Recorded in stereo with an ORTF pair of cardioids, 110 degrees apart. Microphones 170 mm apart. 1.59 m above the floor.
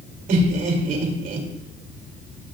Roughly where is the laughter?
Ahead right.